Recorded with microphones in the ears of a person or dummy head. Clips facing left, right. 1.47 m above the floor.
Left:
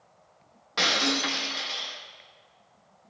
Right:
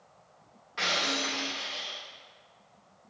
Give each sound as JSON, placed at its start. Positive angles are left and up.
{"t": 0.8, "sound": "breaking glass", "side_deg": 65, "distance_m": 1.5}